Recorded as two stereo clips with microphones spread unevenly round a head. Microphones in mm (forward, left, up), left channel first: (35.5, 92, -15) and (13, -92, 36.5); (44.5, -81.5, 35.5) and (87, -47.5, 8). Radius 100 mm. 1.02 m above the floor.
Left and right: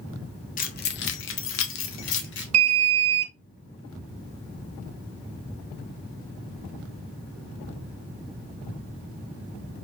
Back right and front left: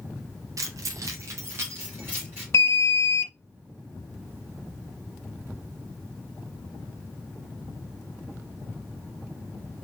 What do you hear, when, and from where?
0.6 s keys jangling: 40° left, 0.8 m; by 2.4 s 115° left, 1.2 m
2.5 s an alarm: 95° right, 0.7 m